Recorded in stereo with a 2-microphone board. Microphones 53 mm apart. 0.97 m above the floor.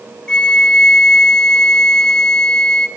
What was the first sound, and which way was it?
A flute, 20° left (ahead or behind).